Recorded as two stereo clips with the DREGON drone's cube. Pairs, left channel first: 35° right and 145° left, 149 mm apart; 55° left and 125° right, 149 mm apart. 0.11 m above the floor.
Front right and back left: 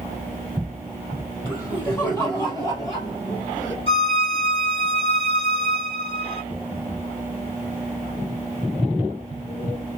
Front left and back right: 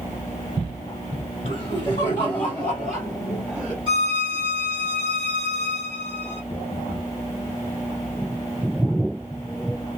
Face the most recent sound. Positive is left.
turn(degrees=-80)